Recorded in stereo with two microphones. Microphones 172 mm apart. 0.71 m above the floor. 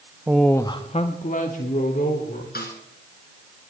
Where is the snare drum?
60° left (ahead or behind), 2.5 m.